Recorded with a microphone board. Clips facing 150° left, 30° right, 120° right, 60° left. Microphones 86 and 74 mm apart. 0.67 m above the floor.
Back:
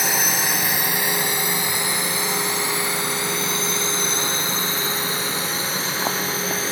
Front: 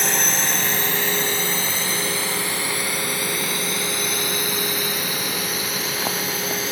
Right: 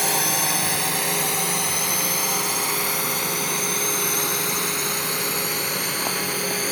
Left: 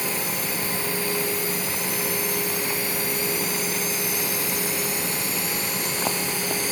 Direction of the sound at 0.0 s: 130° right.